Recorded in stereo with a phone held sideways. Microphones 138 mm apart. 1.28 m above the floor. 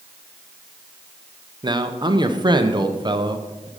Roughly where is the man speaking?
Right.